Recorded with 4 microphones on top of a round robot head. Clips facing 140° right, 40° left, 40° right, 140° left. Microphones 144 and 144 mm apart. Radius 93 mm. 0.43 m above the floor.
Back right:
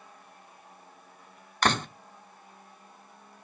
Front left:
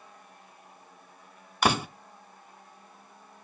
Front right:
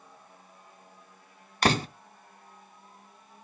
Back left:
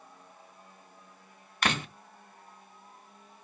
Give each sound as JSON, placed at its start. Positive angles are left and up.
{"t": 1.6, "sound": "a door slam", "azimuth_deg": -35, "distance_m": 0.7}